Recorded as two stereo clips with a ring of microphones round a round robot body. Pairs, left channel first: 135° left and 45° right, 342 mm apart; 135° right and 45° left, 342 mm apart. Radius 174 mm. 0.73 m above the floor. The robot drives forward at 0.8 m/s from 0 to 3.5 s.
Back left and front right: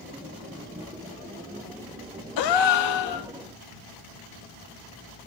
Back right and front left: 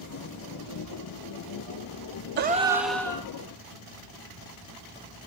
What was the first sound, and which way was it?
A gasp, 105° left.